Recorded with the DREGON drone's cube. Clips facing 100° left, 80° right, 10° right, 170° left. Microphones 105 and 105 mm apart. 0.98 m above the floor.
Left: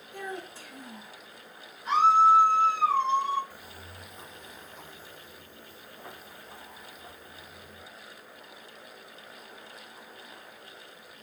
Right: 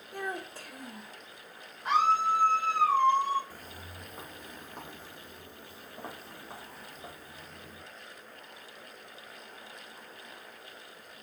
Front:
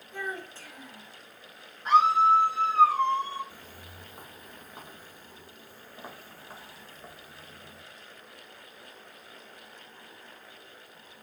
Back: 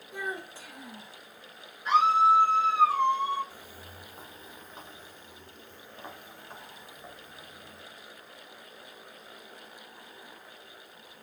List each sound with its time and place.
0.1 s a child speaking: 115° right, 2 m
1.9 s a scream: 65° right, 4 m
3.5 s footsteps: 80° right, 1.2 m; by 7.8 s 95° right, 3.5 m